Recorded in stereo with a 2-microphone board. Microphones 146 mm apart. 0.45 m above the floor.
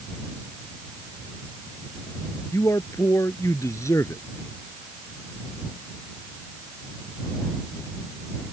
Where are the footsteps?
I don't hear footsteps.